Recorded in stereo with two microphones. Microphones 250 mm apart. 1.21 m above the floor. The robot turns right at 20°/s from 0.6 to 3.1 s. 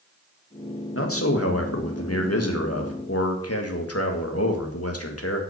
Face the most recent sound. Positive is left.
turn(degrees=105)